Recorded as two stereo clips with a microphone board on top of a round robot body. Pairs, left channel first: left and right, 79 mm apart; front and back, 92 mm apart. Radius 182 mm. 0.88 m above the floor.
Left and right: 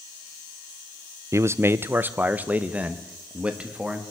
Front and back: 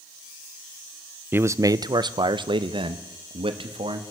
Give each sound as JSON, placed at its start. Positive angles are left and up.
{"t": 1.3, "sound": "a man speaking", "azimuth_deg": -120, "distance_m": 0.6}